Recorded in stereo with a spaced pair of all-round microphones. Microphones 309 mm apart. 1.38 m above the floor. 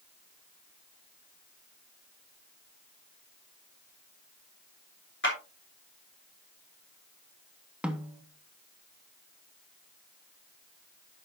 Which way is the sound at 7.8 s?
5° right (ahead or behind).